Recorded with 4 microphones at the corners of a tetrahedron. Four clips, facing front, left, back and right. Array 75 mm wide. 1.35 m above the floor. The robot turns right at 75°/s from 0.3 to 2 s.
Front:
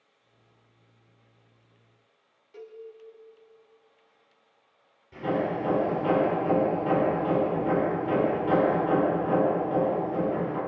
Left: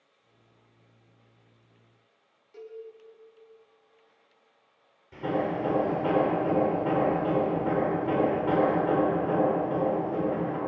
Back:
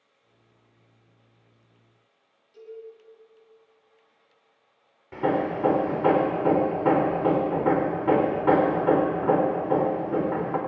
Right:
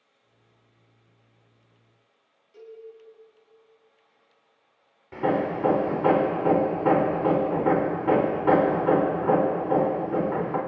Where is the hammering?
140° right, 4 m.